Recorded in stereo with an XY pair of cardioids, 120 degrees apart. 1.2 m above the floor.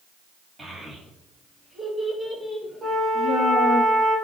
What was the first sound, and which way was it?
A child speaking, 15° right.